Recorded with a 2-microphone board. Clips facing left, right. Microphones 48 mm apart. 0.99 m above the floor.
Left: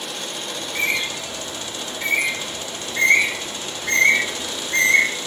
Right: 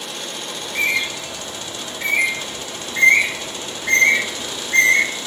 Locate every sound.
0.6 s a bird: 15° right (ahead or behind), 1.3 m